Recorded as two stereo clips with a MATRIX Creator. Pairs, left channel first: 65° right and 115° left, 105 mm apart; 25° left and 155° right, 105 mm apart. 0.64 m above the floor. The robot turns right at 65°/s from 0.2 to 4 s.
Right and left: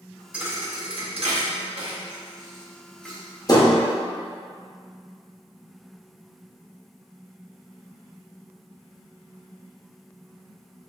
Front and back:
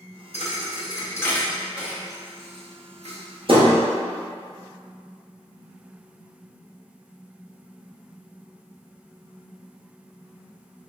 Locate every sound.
0.3 s a thud: 35° left, 0.7 m; by 3.8 s 105° right, 0.7 m